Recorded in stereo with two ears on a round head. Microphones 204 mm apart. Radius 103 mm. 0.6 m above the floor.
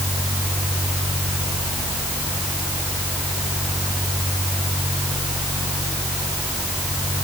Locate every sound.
Only background noise.